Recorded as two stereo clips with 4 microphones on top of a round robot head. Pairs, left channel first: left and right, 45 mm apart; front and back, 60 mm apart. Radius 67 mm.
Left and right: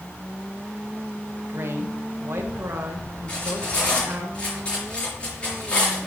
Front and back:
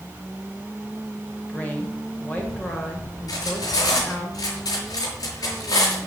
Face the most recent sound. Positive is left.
turn(degrees=20)